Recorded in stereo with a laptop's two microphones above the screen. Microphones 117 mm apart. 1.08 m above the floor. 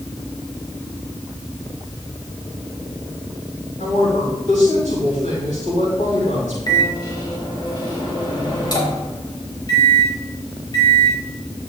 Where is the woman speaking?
85° left, 5.5 m.